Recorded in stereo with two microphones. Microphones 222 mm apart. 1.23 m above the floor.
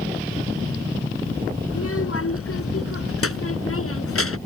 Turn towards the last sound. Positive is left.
turn(degrees=85)